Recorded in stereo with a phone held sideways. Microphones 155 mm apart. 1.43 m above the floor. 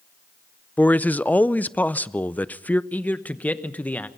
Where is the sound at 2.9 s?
10° left (ahead or behind), 1.1 m.